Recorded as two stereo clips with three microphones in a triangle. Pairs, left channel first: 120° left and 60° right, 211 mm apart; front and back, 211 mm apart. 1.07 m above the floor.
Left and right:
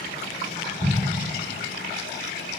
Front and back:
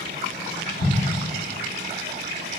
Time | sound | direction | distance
0.8 | an explosion | 5° right | 0.8 m